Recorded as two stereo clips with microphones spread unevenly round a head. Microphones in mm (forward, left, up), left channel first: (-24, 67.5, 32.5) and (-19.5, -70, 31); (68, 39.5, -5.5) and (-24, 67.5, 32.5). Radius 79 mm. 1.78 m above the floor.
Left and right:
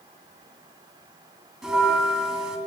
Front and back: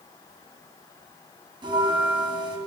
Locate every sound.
1.6 s a bell: 175° right, 2 m